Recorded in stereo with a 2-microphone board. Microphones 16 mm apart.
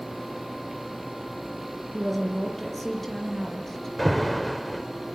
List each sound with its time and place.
1.9 s a woman speaking: 10° left (ahead or behind), 7 m; by 3.9 s 20° left (ahead or behind), 7.5 m
4.0 s an alarm: 10° left (ahead or behind), 2 m